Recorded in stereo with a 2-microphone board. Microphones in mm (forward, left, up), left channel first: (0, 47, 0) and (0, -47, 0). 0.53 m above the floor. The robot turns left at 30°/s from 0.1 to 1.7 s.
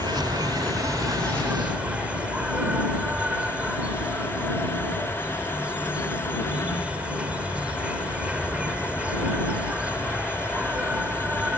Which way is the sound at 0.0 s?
115° right.